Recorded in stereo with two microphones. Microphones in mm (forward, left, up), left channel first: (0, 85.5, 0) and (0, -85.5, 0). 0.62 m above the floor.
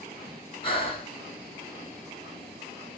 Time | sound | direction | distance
0.6 | breathing | 35° left (ahead or behind) | 1.4 m